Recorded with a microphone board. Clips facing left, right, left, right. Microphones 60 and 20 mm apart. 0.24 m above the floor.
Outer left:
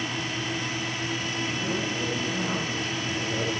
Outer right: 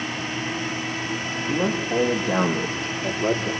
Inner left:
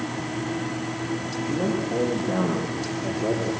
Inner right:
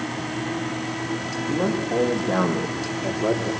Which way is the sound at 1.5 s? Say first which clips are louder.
Outer right 9 dB, inner right 2 dB; 70° right (ahead or behind).